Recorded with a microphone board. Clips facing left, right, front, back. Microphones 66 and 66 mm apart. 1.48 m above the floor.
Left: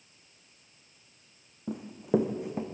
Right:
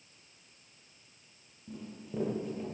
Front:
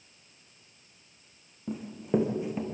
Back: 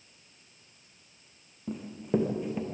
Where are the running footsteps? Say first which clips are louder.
Left 15 dB, front 1 dB; 85° left, 3.5 m.